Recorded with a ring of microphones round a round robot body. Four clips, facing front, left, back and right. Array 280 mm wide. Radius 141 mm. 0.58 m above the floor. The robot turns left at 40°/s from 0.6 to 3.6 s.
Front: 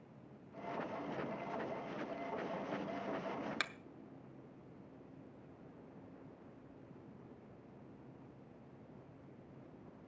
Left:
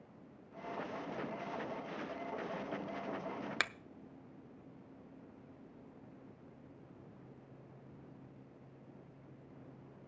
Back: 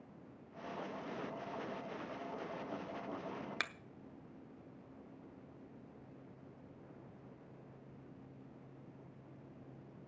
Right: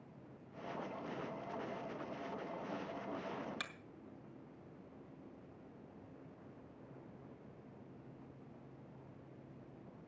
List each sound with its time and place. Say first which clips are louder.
3.6 s a finger snap: left 9 dB, even; 90° left, 0.6 m